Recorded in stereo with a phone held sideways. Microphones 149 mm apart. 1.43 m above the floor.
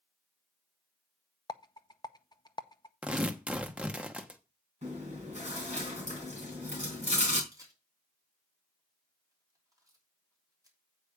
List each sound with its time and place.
1.5 s a rattle: 30° left (ahead or behind), 0.6 m
3.0 s tearing paper: 5° right (ahead or behind), 1.0 m
4.8 s chewing: 50° right (ahead or behind), 3.5 m
7.5 s a camera shutter: 25° right (ahead or behind), 3 m